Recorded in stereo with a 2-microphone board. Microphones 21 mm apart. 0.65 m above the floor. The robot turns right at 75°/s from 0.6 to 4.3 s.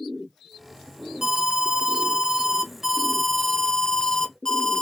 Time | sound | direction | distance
1.2 | an alarm | 140° right | 0.5 m